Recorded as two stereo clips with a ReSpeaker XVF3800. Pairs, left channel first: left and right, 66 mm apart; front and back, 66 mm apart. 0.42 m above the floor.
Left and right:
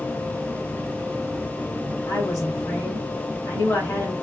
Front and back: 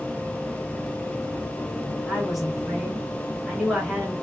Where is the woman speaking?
95° left, 1.5 m.